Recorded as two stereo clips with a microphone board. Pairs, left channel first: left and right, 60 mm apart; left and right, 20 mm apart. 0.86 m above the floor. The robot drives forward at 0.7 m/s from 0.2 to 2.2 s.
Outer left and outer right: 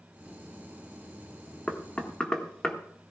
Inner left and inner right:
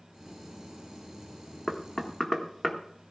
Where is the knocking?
20° left (ahead or behind), 1.5 m; by 2.8 s 15° left (ahead or behind), 1.8 m.